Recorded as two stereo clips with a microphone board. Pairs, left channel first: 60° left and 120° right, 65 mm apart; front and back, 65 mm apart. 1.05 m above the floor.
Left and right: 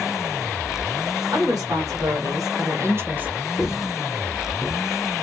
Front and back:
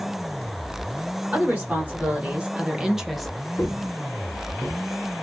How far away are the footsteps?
About 1.2 m.